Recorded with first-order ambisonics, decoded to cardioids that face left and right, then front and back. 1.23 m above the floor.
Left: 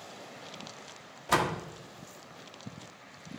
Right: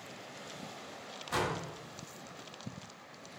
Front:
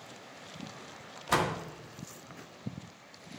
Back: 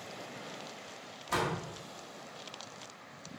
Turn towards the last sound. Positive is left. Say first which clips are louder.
# left 6 dB, front 4 dB
turn(degrees=60)